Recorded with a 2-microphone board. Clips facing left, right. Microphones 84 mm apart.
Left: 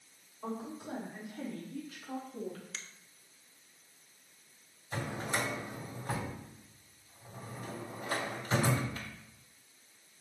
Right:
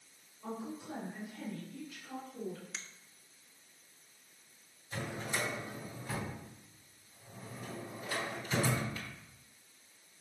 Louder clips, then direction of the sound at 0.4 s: Left 2 dB; 70° left (ahead or behind).